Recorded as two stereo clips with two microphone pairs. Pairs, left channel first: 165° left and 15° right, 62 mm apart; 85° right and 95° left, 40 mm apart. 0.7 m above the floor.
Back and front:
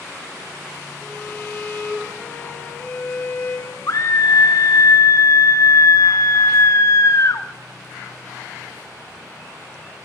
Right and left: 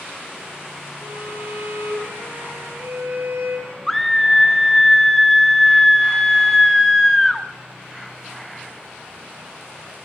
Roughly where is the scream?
Behind.